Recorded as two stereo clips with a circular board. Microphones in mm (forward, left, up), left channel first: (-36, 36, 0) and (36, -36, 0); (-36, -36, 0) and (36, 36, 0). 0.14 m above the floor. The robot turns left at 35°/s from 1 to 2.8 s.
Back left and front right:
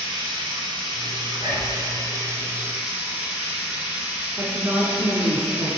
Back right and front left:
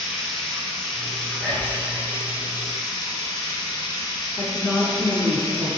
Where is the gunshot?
I don't hear a gunshot.